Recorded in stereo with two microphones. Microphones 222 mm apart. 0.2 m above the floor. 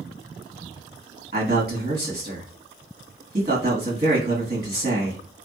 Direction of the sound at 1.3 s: 45° right (ahead or behind).